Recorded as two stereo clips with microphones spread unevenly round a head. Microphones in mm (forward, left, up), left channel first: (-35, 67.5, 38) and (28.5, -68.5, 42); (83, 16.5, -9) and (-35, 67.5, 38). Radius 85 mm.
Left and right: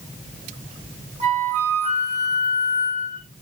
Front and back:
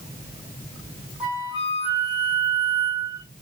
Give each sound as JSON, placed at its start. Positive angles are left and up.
{"t": 1.2, "sound": "a flute", "azimuth_deg": -115, "distance_m": 3.5}